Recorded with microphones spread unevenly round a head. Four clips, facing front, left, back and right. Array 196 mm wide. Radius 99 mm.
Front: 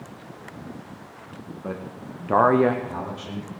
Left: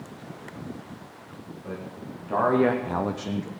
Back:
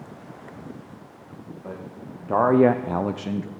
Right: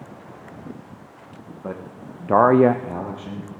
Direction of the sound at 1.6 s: 55° right.